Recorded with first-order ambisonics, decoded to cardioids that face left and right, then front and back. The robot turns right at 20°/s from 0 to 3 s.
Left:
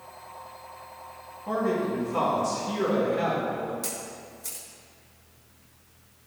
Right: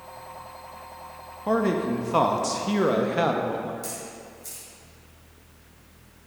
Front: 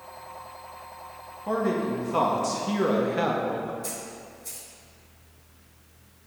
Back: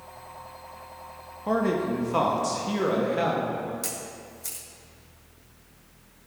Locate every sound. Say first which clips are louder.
1.5 s a man speaking: right 3 dB, back 1 dB; 110° right, 0.6 m; by 3.7 s 80° right, 0.6 m
3.8 s a camera shutter: even, back 1 dB; 165° left, 1.8 m